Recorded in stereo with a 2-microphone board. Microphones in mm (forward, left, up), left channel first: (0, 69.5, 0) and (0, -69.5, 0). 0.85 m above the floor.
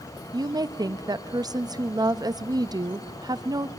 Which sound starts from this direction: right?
A woman speaking, at 0.3 s.